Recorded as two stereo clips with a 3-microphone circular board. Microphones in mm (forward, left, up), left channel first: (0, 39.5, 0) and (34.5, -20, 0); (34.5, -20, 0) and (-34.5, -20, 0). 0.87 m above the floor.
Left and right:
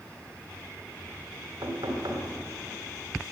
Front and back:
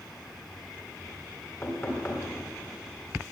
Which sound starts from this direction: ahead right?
Knocking, at 1.6 s.